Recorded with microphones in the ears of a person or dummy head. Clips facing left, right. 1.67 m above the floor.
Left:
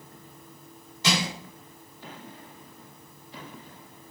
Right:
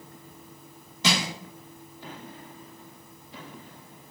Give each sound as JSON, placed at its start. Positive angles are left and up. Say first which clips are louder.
{"t": 1.0, "sound": "crushing", "louder": "even", "side_deg": -65, "distance_m": 4.0}